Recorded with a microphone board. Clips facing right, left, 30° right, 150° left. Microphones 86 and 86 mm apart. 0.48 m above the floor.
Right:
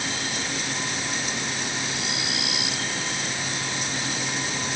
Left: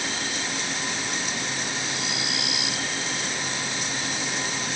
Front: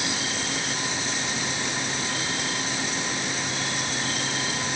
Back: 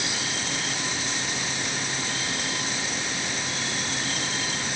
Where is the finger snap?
I don't hear a finger snap.